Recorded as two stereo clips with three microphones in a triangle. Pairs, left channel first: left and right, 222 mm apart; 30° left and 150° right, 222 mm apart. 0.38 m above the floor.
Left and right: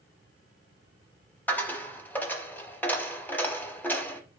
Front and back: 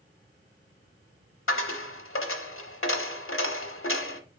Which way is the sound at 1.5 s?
10° left.